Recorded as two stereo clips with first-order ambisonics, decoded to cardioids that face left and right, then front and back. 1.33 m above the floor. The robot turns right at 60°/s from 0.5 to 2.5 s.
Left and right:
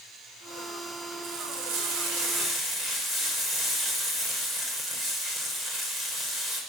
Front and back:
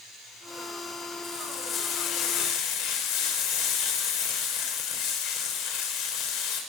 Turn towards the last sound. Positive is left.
turn(degrees=-20)